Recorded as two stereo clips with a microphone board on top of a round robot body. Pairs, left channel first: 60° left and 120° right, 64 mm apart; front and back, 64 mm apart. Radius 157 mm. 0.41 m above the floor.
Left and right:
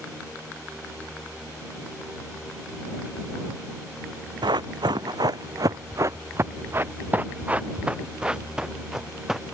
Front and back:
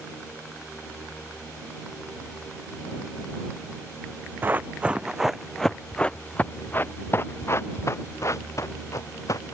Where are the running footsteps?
120° right; by 9.6 s 35° right.